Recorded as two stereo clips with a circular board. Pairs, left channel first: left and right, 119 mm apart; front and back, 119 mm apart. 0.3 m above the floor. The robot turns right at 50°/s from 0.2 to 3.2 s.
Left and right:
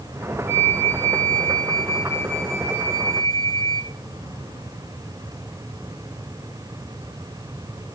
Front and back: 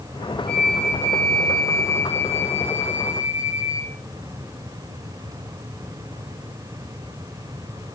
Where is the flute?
80° left, 5 m; by 4.0 s 145° right, 5 m.